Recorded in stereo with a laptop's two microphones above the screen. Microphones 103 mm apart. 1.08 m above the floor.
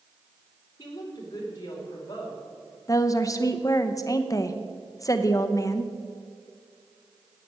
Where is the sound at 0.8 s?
45° left (ahead or behind), 4 m; by 2.4 s 30° left (ahead or behind), 5 m.